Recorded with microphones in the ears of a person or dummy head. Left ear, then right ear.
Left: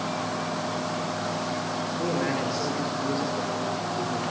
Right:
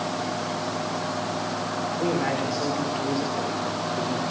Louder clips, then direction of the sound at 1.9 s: Right 3 dB; centre (ahead or behind).